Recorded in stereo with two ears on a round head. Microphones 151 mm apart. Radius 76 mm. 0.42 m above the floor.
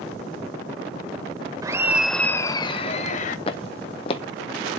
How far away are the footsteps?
About 0.8 m.